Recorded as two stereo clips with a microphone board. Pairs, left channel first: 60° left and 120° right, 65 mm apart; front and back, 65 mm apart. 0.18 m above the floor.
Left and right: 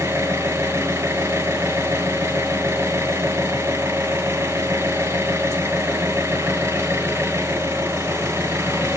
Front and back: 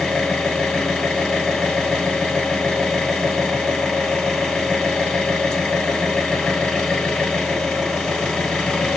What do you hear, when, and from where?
0.0 s an engine running: 80° right, 1.5 m